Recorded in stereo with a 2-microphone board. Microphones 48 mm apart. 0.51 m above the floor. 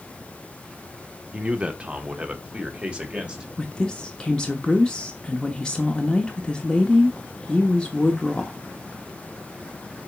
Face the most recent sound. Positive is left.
turn(degrees=15)  # may be behind; listen again after turning